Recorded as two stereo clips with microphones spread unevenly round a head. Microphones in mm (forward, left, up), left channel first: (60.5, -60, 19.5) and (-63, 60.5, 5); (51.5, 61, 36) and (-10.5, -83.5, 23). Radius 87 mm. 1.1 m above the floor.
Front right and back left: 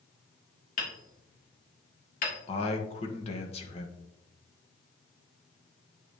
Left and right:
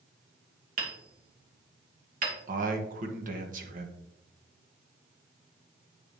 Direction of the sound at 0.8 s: 85° right.